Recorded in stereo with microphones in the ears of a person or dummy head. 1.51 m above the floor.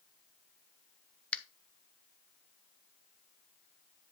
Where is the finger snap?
5° left (ahead or behind), 0.6 m.